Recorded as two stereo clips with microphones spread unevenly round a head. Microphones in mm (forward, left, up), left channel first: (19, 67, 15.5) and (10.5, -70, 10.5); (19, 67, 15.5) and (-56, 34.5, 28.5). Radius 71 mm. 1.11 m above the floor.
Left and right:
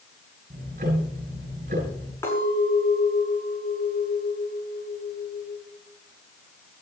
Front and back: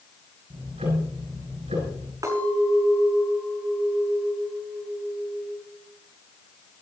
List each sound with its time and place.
0.5 s ticking: 130° right, 7.5 m
2.2 s a clink: 160° left, 7.5 m